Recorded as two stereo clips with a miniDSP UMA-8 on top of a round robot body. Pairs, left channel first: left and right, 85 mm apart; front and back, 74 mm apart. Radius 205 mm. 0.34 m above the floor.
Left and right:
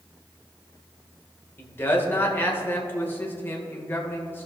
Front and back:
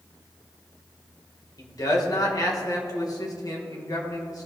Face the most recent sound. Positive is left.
turn(degrees=25)